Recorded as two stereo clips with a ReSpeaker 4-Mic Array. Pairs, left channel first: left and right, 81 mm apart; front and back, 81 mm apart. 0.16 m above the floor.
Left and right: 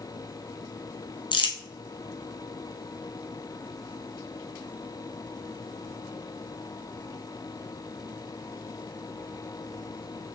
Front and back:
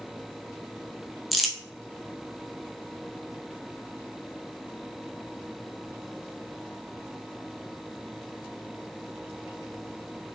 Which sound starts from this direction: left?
Crumpling, at 1.3 s.